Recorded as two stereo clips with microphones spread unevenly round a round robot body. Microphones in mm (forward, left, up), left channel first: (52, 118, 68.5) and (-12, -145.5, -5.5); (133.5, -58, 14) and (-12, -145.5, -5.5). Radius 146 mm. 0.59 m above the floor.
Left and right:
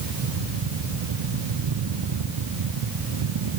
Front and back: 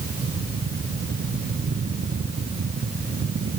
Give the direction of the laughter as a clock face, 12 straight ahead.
I don't hear laughter.